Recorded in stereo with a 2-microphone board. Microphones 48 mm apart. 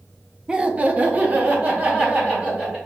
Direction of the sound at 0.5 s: 20° right (ahead or behind).